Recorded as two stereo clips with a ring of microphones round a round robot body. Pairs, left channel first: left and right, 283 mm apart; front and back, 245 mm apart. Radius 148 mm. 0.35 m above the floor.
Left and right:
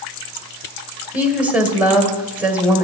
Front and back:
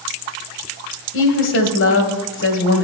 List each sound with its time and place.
1.1 s a woman speaking: 5° right, 1.6 m